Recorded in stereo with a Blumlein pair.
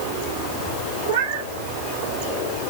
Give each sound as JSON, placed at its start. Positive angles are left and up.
{"t": 1.1, "sound": "a cat meowing", "azimuth_deg": -40, "distance_m": 1.7}